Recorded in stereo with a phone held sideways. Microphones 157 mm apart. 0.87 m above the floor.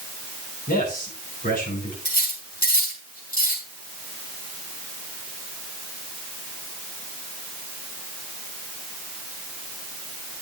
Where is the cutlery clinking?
70° left (ahead or behind), 5.5 m.